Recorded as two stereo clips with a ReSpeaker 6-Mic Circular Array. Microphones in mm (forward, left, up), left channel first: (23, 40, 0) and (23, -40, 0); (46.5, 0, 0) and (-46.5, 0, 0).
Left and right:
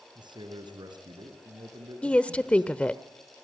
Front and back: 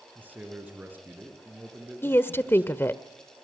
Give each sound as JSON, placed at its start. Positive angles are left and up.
{"t": 0.1, "sound": "a man speaking", "azimuth_deg": -110, "distance_m": 5.0}
{"t": 2.0, "sound": "a woman speaking", "azimuth_deg": 30, "distance_m": 0.9}